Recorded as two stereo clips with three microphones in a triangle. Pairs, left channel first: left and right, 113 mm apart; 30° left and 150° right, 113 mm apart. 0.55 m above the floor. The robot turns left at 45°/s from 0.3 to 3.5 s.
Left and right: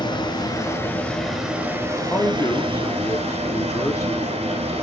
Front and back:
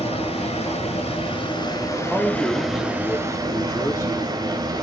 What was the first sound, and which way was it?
Running water, 45° left.